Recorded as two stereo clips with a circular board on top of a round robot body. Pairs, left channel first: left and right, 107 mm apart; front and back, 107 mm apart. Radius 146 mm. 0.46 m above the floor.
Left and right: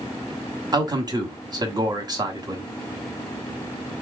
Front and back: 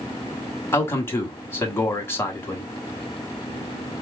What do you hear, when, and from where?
0.7 s a man speaking: 60° right, 1.3 m